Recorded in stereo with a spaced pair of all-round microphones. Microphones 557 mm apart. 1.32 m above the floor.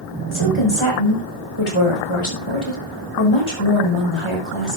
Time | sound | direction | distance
0.3 | a woman speaking | 55° left (ahead or behind) | 5.5 m